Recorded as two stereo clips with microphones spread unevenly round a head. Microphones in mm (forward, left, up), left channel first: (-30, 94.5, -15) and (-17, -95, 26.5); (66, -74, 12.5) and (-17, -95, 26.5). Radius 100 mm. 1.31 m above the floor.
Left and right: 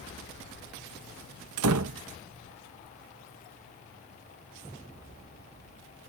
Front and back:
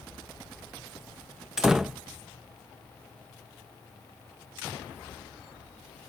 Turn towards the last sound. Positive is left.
turn(degrees=-80)